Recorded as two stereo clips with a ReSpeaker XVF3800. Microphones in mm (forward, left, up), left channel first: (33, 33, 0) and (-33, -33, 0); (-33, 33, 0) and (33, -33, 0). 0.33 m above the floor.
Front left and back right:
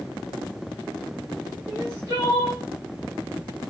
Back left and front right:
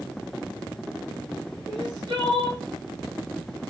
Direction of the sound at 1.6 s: 85° right.